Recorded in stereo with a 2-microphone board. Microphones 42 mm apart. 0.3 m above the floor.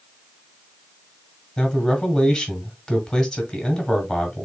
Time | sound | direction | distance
1.6 | a man speaking | 10° left (ahead or behind) | 1.4 m